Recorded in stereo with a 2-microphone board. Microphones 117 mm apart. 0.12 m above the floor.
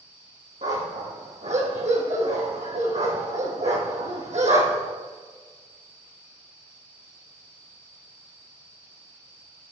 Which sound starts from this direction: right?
A dog barking, at 0.6 s.